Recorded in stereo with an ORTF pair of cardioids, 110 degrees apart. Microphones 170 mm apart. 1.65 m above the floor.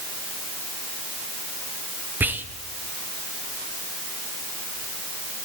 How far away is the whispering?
About 0.9 m.